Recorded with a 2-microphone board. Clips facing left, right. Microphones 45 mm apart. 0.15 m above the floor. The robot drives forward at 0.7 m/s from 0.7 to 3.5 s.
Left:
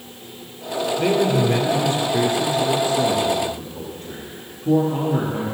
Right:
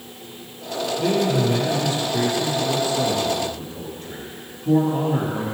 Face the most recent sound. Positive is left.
turn(degrees=35)  # may be behind; listen again after turning